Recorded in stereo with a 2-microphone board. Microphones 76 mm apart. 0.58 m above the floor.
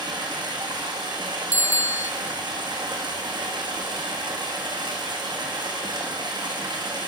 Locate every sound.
0.0 s running water: 85° right, 6 m
1.5 s a bicycle bell: 30° right (ahead or behind), 2 m